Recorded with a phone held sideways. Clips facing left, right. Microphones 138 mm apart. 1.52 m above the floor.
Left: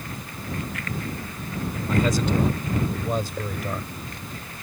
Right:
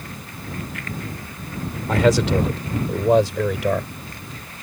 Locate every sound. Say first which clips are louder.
1.9 s a man speaking: right 6 dB; 80° right; by 3.9 s 85° right